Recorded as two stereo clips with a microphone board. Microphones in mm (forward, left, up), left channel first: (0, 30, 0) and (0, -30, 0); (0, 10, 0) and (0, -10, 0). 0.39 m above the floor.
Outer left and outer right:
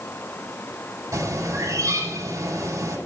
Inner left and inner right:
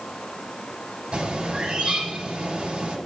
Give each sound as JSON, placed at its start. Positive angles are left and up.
{"t": 1.1, "sound": "a bird", "side_deg": -60, "distance_m": 6.0}